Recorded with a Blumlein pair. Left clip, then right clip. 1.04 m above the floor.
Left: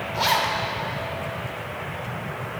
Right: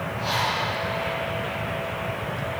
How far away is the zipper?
About 1.9 m.